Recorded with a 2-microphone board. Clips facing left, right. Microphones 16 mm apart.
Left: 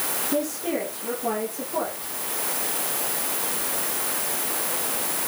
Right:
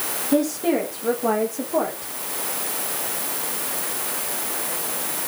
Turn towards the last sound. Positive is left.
turn(degrees=-35)  # may be behind; listen again after turning